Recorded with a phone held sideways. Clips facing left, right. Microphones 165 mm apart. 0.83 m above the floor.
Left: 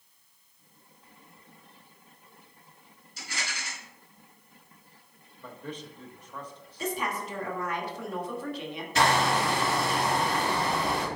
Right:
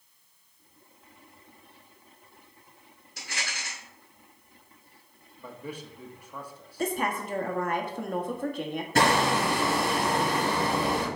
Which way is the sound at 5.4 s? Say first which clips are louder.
Right 1 dB; 10° right (ahead or behind).